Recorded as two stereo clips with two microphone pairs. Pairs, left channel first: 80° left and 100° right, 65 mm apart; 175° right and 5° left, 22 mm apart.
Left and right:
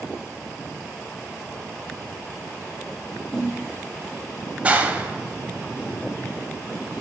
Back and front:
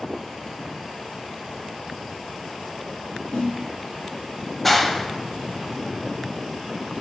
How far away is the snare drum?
About 1.9 m.